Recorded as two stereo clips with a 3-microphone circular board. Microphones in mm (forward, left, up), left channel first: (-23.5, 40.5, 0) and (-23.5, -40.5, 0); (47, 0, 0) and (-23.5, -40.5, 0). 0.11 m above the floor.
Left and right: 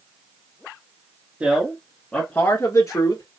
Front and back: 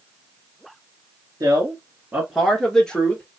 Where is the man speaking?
155° right, 1.2 m; by 3.2 s 95° left, 1.5 m.